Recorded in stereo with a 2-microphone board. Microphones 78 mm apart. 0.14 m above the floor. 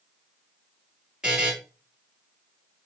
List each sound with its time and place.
1.2 s a buzzer: 10° right (ahead or behind), 2 m